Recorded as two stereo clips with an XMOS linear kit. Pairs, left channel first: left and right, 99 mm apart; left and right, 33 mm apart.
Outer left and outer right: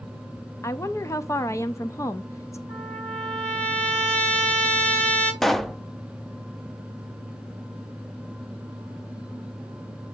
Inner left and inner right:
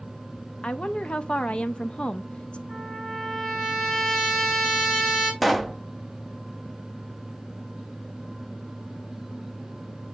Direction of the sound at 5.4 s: Centre (ahead or behind).